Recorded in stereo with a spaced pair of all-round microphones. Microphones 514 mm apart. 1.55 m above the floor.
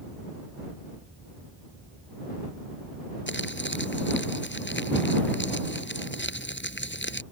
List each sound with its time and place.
3.3 s crumpling: 20° left (ahead or behind)